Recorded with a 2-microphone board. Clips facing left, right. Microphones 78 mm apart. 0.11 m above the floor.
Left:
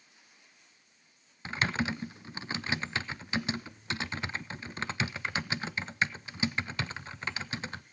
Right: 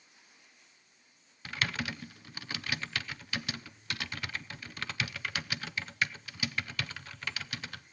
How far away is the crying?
No crying in this recording.